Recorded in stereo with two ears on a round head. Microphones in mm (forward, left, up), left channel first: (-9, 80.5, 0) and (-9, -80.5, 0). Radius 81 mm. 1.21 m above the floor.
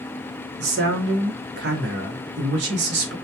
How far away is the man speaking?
About 0.8 m.